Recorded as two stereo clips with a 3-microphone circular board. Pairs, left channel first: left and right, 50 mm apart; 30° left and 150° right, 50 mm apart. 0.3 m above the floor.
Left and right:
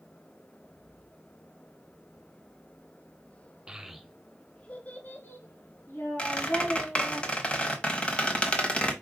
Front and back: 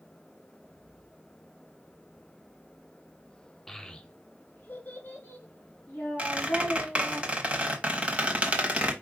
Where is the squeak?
150° left, 1.0 m.